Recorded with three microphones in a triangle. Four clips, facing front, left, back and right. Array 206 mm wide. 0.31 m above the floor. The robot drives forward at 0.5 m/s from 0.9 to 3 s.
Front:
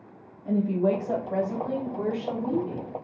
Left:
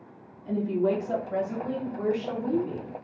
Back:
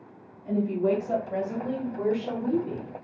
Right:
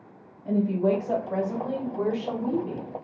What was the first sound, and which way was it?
A woman speaking, 50° right.